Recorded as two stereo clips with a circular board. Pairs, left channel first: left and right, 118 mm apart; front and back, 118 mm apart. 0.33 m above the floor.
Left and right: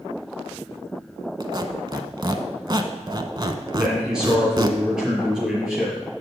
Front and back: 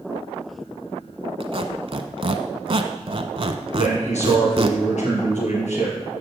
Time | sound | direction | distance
1.4 | a squeak | 140° right | 0.8 m
3.7 | a man speaking | 5° right | 5 m